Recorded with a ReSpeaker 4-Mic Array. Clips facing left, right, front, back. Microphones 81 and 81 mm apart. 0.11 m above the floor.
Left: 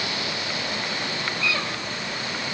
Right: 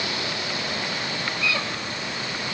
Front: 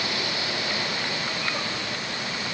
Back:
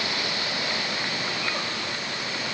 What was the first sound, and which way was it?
Only background noise.